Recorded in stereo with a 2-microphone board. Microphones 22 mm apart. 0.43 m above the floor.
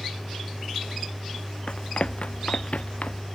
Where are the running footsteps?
55° left (ahead or behind); by 3.3 s 70° left (ahead or behind).